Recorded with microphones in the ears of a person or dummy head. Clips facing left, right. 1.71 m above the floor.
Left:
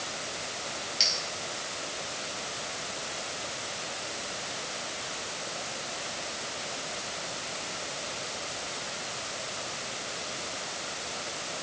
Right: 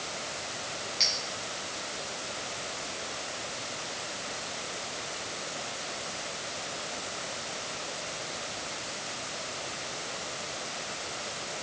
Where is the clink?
10° left (ahead or behind), 3 m.